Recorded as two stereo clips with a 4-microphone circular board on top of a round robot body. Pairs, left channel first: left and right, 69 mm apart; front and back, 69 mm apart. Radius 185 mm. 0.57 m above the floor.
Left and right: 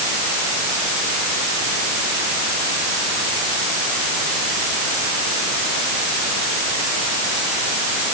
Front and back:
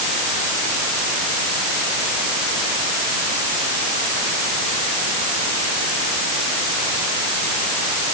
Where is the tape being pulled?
No tape being pulled in this recording.